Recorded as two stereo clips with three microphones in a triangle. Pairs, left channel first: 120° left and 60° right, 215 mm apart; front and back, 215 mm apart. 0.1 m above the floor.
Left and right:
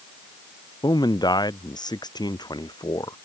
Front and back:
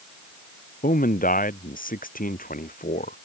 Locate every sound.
0.8 s a man speaking: 50° left